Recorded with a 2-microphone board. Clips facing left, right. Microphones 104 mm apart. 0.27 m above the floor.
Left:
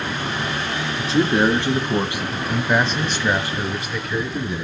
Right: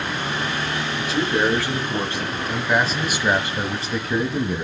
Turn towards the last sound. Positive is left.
turn(degrees=-55)  # may be behind; listen again after turning